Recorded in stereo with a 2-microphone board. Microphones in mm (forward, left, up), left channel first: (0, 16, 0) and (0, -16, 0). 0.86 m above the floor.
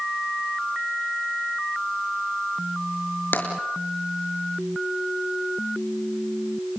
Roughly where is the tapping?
Left.